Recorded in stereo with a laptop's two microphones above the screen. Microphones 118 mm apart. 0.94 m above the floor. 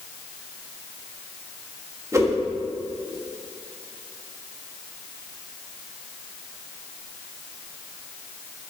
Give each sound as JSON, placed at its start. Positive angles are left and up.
{"t": 2.1, "sound": "a whoosh", "side_deg": -25, "distance_m": 1.4}